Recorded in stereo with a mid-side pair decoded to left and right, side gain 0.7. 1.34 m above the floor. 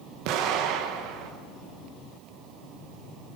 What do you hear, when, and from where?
0.2 s an explosion: 65° right, 1.8 m